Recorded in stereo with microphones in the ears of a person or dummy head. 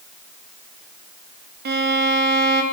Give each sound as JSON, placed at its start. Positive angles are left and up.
{"t": 1.6, "sound": "a violin", "side_deg": -55, "distance_m": 2.0}